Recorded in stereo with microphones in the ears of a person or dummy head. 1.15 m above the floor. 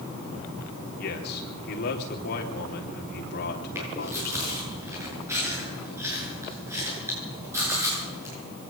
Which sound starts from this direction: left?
A man speaking, at 1.0 s.